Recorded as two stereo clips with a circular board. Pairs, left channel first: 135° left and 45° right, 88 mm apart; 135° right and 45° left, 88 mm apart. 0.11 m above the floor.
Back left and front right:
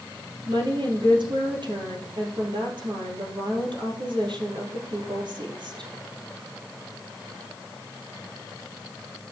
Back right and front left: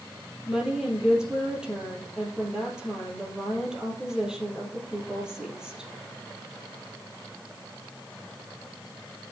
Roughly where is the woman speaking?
Ahead right.